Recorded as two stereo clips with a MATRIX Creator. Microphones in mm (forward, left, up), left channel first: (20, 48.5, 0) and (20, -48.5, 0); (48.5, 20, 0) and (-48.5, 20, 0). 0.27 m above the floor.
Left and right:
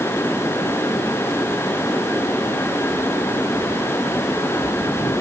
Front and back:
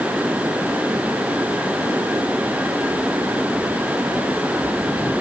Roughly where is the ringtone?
I don't hear a ringtone.